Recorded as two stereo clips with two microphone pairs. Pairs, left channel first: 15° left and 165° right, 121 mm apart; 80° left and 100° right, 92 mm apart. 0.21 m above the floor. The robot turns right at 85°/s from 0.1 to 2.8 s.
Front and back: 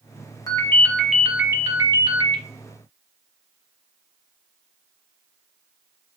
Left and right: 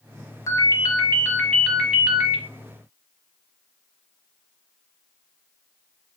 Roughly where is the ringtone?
Ahead left.